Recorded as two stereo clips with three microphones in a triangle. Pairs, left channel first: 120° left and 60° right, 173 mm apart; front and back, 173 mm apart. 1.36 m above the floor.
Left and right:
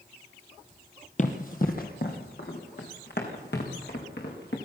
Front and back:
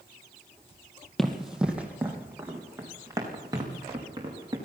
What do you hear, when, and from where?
1.2 s running footsteps: 90° left, 2.5 m; by 4.6 s 115° left, 6 m